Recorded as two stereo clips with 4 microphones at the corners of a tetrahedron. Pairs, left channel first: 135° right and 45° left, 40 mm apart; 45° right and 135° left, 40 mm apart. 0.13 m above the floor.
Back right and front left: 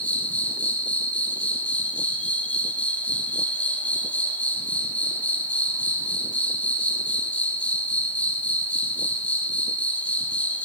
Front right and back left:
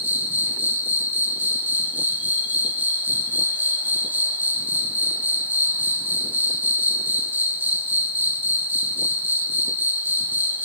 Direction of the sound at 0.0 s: 175° left.